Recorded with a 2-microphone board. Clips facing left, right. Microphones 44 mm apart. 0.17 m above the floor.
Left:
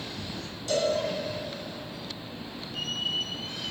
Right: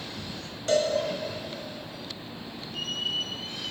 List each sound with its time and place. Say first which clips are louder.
0.7 s a cowbell: right 2 dB; 45° right (ahead or behind), 1.7 m